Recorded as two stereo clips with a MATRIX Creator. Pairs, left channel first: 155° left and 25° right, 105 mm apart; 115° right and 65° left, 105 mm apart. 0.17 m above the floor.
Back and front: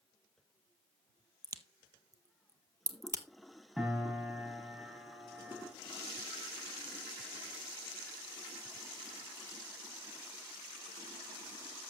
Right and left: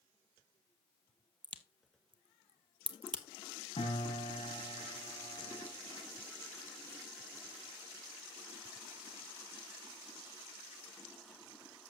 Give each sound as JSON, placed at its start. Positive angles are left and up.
{"t": 1.4, "sound": "a crack", "azimuth_deg": 35, "distance_m": 0.7}
{"t": 3.8, "sound": "a piano", "azimuth_deg": -110, "distance_m": 4.0}